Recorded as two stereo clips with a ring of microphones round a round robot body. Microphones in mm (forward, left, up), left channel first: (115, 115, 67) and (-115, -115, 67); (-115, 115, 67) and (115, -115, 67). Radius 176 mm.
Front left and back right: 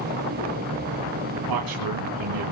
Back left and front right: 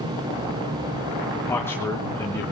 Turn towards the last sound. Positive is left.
turn(degrees=-140)